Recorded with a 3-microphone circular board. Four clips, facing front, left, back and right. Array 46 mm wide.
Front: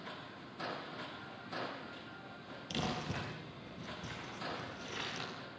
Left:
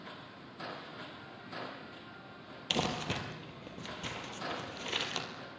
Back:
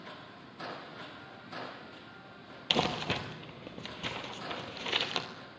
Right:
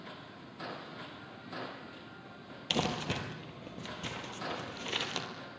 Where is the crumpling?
Straight behind, 2.5 m.